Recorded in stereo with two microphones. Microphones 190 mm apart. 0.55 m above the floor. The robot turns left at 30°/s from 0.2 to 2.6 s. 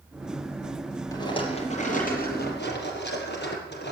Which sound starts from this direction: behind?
A rattle, at 1.1 s.